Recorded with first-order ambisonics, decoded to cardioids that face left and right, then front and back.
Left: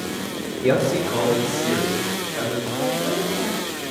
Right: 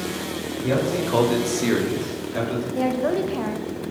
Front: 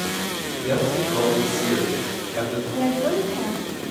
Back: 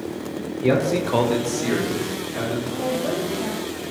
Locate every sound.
0.6 s a man speaking: 125° left, 0.9 m; by 2.6 s 90° right, 2.5 m
2.8 s a woman speaking: 60° right, 0.6 m